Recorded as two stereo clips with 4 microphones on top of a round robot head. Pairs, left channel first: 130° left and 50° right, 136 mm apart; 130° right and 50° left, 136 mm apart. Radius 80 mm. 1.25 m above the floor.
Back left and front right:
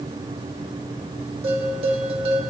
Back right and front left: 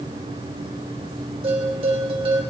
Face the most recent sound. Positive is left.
turn(degrees=0)